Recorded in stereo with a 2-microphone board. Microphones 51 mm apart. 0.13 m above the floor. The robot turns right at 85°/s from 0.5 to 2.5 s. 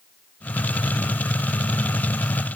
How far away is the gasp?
No gasp in this recording.